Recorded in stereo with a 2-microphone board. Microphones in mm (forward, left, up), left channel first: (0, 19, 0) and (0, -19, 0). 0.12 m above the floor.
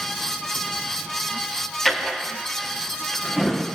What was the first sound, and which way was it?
A drawer, centre (ahead or behind).